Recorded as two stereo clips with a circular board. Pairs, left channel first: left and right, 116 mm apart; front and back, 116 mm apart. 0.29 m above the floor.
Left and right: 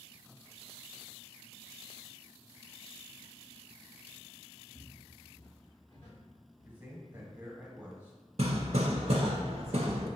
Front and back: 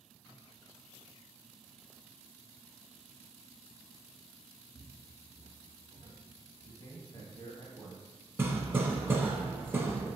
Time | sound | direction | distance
4.8 | footsteps | 160° left | 0.9 m
6.7 | a man speaking | 25° right | 1.1 m
8.4 | hammering | 110° right | 0.6 m